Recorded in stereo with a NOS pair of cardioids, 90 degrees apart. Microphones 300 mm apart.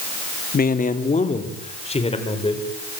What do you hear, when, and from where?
0.5 s a man speaking: 30° left, 2.5 m; by 2.6 s 15° left, 5.5 m